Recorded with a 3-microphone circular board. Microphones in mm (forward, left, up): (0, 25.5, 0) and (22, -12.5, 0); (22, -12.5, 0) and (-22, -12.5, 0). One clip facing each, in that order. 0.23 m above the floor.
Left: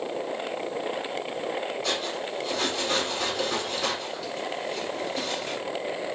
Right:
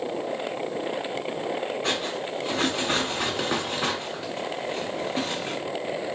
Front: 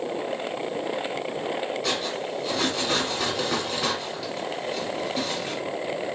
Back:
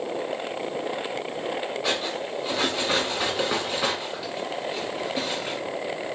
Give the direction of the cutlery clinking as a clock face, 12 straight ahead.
4 o'clock.